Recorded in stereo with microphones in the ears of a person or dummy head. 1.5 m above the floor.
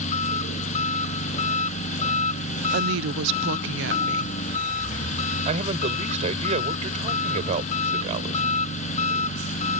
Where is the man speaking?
35° right (ahead or behind).